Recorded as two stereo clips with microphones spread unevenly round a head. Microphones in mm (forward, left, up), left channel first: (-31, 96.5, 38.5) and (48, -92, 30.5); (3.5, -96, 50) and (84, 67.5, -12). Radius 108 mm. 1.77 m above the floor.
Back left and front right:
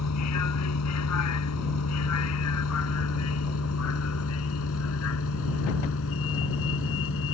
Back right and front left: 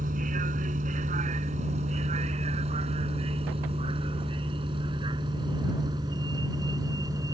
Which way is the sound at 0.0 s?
125° left.